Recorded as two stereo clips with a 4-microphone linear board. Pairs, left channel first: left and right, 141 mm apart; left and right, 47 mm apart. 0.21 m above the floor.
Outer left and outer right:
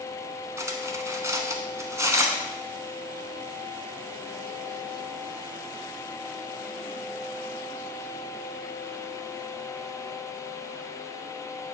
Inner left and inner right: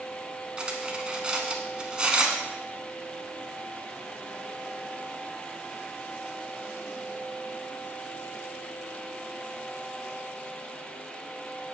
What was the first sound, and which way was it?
Cutlery clinking, 20° right (ahead or behind).